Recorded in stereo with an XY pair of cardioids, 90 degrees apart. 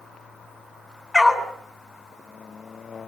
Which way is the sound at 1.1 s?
25° left.